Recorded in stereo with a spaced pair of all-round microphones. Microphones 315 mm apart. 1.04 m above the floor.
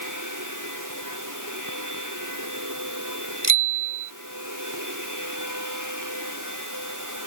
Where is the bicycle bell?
80° right.